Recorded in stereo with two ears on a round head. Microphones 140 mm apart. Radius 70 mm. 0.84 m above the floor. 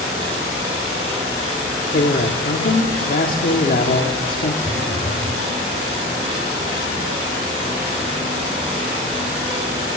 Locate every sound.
1.9 s a man speaking: 55° left (ahead or behind), 1.7 m
4.6 s a phone buzzing: 30° left (ahead or behind), 4 m